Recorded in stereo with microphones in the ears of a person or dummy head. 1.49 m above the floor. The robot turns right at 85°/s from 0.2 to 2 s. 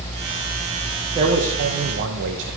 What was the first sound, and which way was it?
A man speaking, 155° right.